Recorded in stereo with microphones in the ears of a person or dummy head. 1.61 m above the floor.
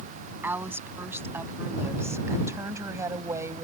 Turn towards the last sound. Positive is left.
turn(degrees=-20)  # may be behind; listen again after turning